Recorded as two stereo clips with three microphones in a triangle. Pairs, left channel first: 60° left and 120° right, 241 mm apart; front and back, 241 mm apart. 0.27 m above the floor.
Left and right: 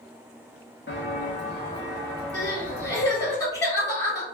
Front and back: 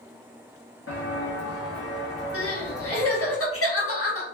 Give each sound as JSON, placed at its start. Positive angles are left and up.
{"t": 0.9, "sound": "footsteps", "azimuth_deg": 20, "distance_m": 0.7}
{"t": 2.3, "sound": "crying", "azimuth_deg": -15, "distance_m": 1.9}